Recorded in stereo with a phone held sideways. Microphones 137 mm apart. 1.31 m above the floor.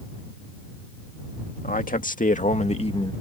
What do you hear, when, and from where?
1.6 s a man speaking: 85° left; by 3.1 s 35° left (ahead or behind)